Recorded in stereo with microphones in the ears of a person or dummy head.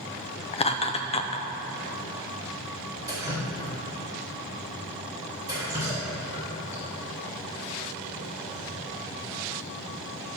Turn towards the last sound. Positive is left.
turn(degrees=-20)  # may be behind; listen again after turning